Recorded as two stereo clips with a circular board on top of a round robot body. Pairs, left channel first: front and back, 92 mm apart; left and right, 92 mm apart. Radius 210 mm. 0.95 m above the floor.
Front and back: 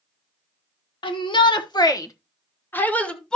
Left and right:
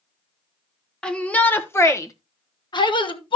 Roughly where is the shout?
Ahead.